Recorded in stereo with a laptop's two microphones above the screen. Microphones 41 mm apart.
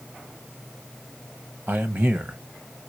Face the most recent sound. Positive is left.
turn(degrees=-55)  # may be behind; listen again after turning